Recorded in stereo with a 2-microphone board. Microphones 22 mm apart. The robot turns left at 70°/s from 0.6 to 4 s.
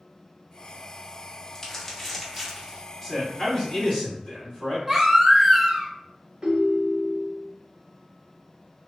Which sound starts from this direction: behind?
A man speaking, at 3.0 s.